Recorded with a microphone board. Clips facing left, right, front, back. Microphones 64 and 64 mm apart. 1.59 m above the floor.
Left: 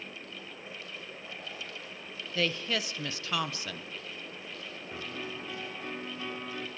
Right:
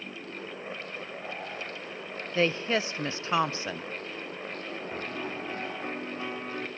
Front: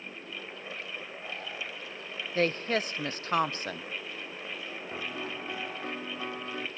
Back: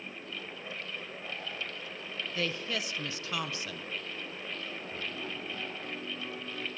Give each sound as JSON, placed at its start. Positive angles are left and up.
{"t": 2.4, "sound": "a woman speaking", "azimuth_deg": -35, "distance_m": 0.7}
{"t": 4.9, "sound": "a piano", "azimuth_deg": -25, "distance_m": 2.0}